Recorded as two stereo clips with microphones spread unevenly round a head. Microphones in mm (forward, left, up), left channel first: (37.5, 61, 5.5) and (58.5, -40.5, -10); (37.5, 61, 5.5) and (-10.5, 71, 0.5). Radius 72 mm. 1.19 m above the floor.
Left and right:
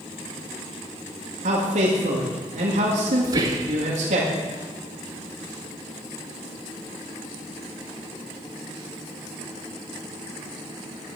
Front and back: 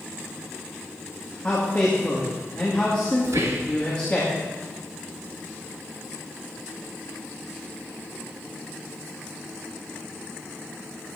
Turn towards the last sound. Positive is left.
turn(degrees=-140)